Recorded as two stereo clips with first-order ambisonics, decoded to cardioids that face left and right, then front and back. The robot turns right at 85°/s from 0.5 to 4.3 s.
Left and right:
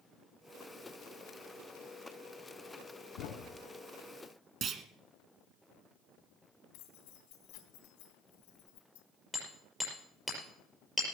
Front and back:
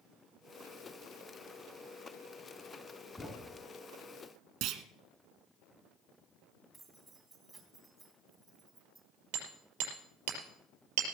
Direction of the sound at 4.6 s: 150° right.